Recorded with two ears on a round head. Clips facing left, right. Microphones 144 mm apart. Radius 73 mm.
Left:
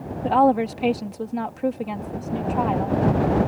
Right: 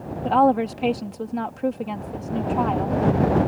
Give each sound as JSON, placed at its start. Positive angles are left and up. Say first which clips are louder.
{"t": 0.2, "sound": "a woman speaking", "louder": "even", "side_deg": 5}